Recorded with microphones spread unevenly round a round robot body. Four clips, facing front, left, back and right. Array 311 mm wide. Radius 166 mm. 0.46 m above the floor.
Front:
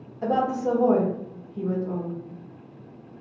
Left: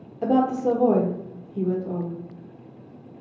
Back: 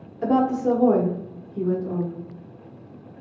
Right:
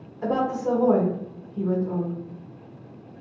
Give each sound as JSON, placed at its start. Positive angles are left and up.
{"t": 0.2, "sound": "a woman speaking", "azimuth_deg": 130, "distance_m": 1.1}